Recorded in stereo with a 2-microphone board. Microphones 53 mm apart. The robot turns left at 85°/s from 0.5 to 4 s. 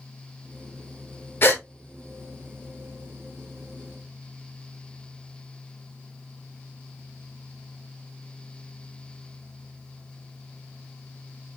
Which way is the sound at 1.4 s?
45° left (ahead or behind).